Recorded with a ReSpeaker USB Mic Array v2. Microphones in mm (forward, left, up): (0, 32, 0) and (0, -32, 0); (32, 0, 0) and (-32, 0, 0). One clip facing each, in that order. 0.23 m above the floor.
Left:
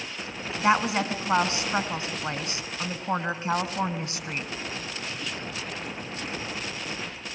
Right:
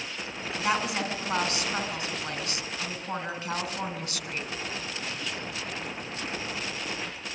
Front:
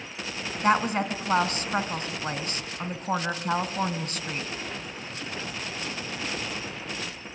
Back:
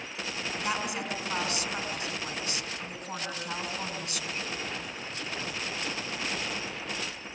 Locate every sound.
0.6 s a woman speaking: 35° left, 2 m